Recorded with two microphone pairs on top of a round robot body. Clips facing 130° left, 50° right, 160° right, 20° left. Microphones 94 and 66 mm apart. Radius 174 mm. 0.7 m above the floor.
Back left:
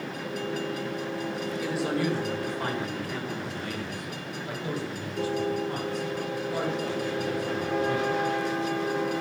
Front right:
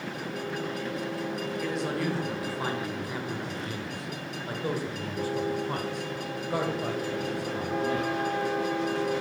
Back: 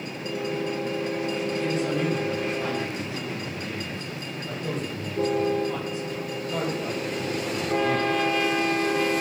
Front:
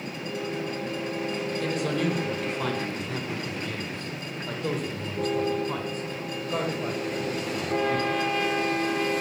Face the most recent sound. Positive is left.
turn(degrees=-40)